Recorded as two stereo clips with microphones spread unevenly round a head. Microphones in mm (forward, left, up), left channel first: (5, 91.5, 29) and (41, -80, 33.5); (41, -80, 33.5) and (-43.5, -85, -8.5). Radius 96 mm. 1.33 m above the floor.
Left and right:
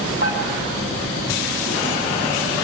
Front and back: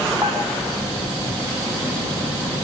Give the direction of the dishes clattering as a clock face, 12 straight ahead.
4 o'clock.